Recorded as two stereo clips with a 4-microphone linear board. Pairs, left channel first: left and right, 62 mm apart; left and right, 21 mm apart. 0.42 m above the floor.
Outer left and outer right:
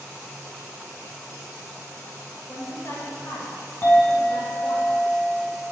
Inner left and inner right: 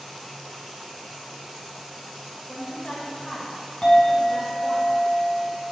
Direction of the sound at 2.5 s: 45° left (ahead or behind).